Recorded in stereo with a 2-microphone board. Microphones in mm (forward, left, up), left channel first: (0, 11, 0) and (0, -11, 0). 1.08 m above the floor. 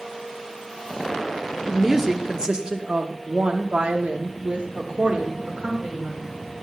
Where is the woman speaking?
15° right (ahead or behind), 1.4 m; by 6.3 s 60° right (ahead or behind), 2 m.